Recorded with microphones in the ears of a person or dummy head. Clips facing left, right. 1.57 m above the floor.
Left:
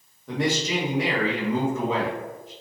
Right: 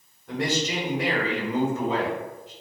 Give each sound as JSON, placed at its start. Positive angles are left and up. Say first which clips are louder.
{"t": 0.3, "sound": "a man speaking", "louder": "left 2 dB", "side_deg": 70, "distance_m": 1.1}